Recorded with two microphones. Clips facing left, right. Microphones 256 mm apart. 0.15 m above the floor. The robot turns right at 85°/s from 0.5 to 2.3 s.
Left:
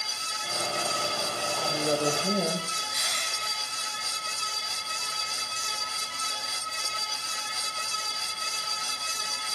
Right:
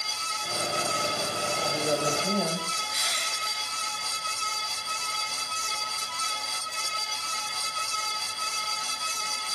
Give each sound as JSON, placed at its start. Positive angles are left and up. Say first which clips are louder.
{"t": 1.6, "sound": "a woman speaking", "louder": "left 1 dB", "azimuth_deg": -15, "distance_m": 4.0}
{"t": 2.9, "sound": "crushing", "louder": "right 1 dB", "side_deg": 55, "distance_m": 2.5}